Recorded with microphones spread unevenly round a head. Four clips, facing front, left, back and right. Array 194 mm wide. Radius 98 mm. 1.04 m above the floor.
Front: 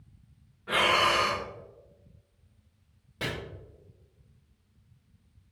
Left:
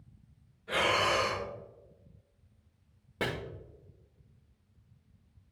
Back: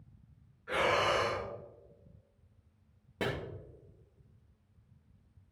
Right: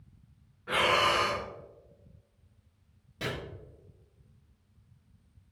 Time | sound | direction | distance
0.7 | breathing | 45° right | 2.5 m
3.2 | chopping | 125° left | 1.7 m